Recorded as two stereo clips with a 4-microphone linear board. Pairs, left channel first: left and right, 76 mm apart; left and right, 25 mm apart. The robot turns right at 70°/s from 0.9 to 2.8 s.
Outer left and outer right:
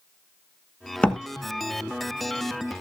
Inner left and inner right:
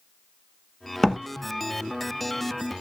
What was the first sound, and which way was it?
A door slam, 10° left (ahead or behind).